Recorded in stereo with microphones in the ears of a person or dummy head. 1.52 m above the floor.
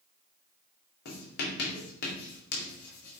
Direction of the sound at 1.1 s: 55° left (ahead or behind).